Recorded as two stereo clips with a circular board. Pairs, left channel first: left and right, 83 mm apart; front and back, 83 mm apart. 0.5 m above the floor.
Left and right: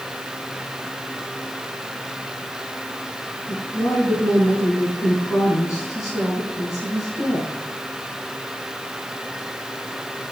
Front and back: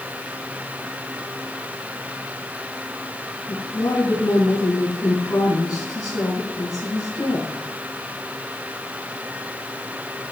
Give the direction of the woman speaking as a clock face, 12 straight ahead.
11 o'clock.